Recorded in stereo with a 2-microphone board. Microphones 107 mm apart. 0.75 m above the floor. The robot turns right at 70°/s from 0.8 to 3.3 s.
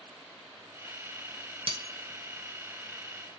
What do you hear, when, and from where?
1.7 s breaking glass: 50° right (ahead or behind), 0.8 m; by 3.4 s 40° left (ahead or behind), 0.8 m